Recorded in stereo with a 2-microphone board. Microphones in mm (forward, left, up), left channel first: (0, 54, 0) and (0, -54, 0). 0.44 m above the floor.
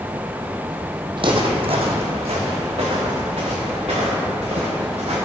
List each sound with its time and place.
1.2 s footsteps: 50° right (ahead or behind), 0.9 m; by 5.2 s 80° right, 3.5 m